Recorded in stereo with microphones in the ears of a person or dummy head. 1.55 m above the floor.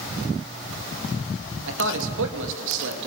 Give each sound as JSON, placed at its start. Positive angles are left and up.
{"t": 1.7, "sound": "a man speaking", "side_deg": -75, "distance_m": 2.5}